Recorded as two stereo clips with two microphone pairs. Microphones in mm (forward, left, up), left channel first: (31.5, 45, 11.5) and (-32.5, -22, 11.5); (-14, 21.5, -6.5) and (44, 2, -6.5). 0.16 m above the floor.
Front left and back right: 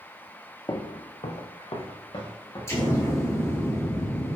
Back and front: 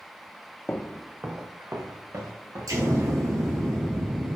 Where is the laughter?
No laughter in this recording.